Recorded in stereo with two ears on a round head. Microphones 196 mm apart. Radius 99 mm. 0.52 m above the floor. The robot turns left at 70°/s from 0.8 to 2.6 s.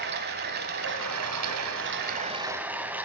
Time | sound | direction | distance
0.0 | running water | 45° right | 1.2 m